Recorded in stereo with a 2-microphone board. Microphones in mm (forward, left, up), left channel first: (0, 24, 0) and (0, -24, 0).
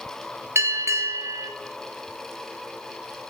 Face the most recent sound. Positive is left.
turn(degrees=-80)